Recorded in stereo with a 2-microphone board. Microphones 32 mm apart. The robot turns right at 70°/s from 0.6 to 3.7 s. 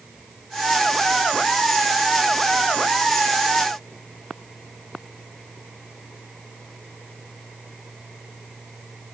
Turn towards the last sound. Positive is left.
No sound to turn to.